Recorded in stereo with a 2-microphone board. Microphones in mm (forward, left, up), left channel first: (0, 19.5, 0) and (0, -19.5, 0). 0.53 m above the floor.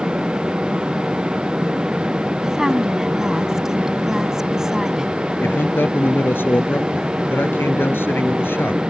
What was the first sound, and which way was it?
A woman speaking, 15° right (ahead or behind).